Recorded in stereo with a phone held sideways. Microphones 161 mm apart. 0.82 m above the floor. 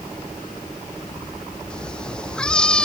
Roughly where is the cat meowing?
Centre.